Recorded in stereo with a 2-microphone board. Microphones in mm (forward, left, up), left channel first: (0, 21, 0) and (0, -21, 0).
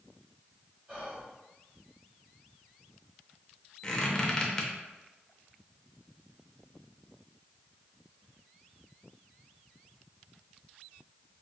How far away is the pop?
No pop in this recording.